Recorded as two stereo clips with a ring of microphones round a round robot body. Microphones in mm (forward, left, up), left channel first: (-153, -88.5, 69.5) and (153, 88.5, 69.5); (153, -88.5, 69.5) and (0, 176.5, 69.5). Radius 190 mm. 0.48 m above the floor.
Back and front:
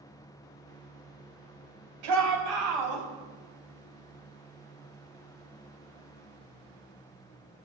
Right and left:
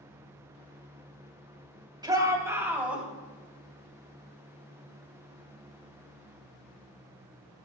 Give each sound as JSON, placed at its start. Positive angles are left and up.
{"t": 2.0, "sound": "a shout", "azimuth_deg": 45, "distance_m": 3.5}